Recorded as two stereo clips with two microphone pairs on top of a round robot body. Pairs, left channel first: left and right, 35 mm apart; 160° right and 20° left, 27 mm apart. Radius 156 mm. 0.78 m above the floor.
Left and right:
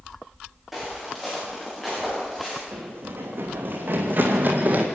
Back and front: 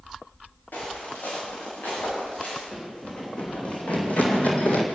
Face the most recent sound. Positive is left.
turn(degrees=-130)